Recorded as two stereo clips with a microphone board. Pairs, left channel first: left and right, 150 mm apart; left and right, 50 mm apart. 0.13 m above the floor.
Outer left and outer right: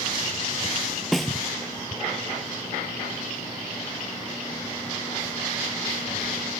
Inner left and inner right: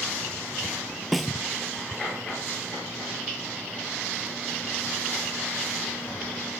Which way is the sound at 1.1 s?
Centre (ahead or behind).